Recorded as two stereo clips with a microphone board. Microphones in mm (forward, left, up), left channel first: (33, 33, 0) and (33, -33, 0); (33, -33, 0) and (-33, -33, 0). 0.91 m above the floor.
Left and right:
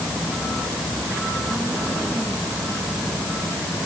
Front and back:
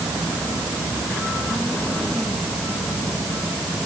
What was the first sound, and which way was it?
Only background noise.